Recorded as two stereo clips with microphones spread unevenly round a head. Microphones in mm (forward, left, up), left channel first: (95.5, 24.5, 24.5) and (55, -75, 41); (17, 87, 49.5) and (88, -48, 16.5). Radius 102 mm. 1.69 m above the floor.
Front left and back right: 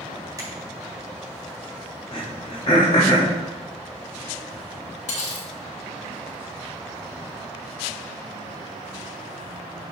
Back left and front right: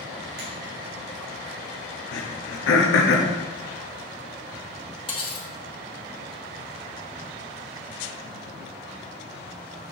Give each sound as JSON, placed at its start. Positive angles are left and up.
{"t": 0.4, "sound": "a finger snap", "azimuth_deg": -55, "distance_m": 3.5}
{"t": 2.1, "sound": "throat clearing", "azimuth_deg": 125, "distance_m": 1.1}
{"t": 5.1, "sound": "cutlery clinking", "azimuth_deg": 65, "distance_m": 3.0}